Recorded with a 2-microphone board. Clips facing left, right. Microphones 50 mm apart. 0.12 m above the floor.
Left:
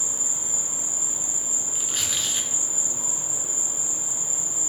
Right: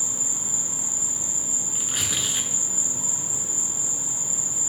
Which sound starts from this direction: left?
An insect, at 0.0 s.